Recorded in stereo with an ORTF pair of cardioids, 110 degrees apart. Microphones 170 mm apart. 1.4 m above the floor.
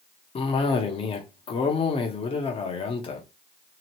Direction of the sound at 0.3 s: 35° left.